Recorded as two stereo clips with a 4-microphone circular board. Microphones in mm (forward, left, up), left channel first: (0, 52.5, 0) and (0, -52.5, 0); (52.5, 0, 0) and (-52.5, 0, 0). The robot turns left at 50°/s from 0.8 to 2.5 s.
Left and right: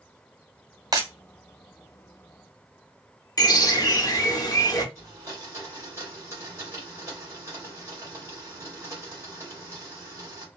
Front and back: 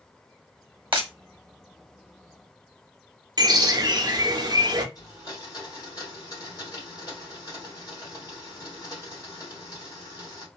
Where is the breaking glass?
145° right, 0.9 m; by 1.1 s 155° right, 0.9 m.